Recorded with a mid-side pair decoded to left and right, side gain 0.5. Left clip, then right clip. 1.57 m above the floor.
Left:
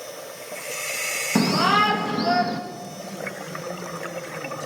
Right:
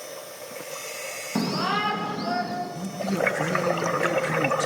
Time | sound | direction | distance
1.4 | a shout | 35° left | 3 m
2.8 | a man speaking | 65° right | 2.5 m